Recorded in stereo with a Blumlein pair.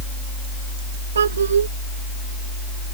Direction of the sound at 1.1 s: 65° right.